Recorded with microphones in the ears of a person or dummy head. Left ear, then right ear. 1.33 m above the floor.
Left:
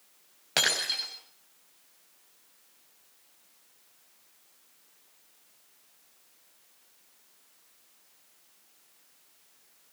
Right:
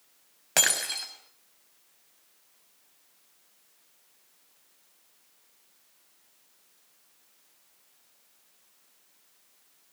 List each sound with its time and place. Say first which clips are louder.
0.6 s breaking glass: even; 10° right (ahead or behind), 4.5 m